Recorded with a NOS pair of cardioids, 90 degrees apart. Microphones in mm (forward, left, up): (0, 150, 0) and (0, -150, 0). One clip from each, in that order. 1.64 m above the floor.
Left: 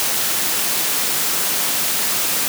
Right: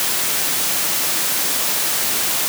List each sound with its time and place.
Only background noise.